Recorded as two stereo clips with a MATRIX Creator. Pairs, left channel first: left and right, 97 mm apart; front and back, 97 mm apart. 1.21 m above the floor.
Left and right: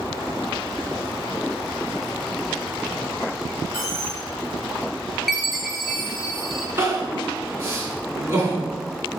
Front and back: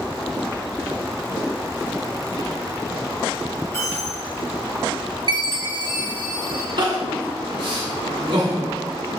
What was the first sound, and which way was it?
A dropped coin, 55° right.